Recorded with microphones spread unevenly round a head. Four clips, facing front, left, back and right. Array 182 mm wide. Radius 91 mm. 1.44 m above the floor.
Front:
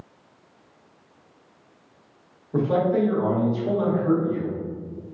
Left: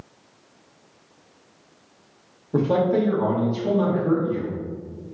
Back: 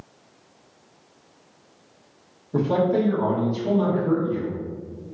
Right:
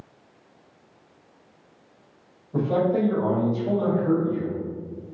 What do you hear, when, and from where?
2.5 s a man speaking: 90° left, 1.2 m